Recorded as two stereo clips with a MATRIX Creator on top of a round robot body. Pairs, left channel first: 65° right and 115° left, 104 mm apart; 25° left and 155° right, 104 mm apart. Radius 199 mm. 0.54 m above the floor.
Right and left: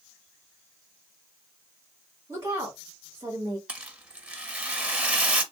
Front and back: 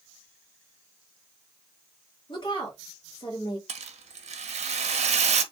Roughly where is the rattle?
Behind.